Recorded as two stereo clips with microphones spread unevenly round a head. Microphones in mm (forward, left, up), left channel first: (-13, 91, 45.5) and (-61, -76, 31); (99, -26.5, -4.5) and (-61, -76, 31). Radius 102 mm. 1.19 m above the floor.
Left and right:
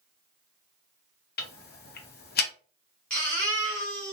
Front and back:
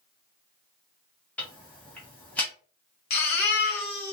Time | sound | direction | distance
1.4 | ticking | 90° left | 0.6 m
3.1 | a baby crying | 5° right | 1.0 m